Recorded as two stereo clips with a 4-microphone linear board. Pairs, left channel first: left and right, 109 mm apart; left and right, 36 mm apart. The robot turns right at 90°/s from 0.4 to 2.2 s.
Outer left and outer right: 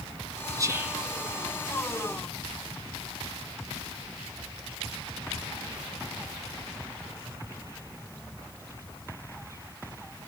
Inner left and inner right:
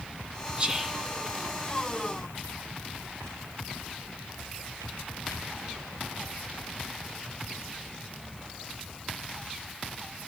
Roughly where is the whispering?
Ahead right.